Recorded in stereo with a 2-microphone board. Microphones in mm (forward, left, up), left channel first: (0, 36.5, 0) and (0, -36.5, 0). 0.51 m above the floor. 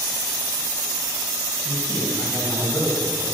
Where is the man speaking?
20° left (ahead or behind), 3 m; by 3.4 s centre (ahead or behind), 3.5 m.